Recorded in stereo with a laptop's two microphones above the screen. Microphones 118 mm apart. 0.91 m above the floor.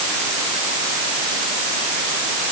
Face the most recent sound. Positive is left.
No sound to turn to.